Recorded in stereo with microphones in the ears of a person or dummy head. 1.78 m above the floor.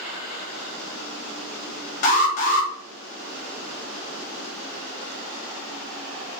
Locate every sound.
2.0 s an alarm: 40° left (ahead or behind), 0.5 m